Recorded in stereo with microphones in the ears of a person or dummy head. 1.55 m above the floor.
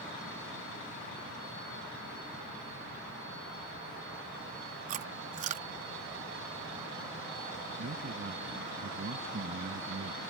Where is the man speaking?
50° right (ahead or behind).